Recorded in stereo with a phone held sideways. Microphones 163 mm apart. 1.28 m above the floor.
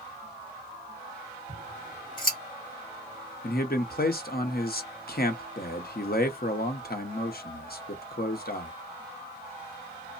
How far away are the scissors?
About 1.2 m.